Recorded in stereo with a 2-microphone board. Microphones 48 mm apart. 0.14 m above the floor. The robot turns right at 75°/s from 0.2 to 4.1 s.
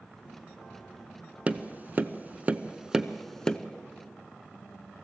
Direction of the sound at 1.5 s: 30° right (ahead or behind).